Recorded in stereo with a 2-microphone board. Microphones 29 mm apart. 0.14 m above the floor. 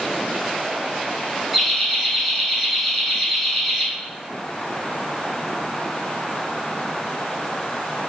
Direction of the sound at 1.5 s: 5° right (ahead or behind).